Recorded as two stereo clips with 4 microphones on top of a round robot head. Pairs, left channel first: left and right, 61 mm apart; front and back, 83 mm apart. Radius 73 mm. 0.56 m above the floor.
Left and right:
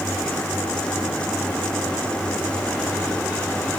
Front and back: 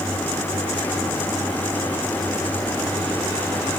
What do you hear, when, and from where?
Only background noise.